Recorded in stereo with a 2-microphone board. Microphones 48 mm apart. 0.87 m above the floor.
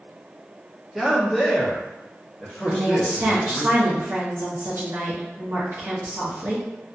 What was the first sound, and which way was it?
A man speaking, 5° right (ahead or behind).